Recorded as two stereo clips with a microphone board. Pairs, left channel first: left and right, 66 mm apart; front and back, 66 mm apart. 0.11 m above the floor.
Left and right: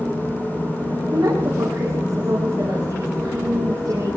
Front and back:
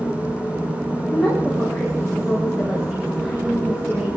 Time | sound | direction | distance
1.1 | a woman speaking | 95° right | 9 m